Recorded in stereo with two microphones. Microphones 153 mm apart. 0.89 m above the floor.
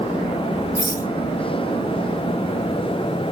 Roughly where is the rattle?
Left.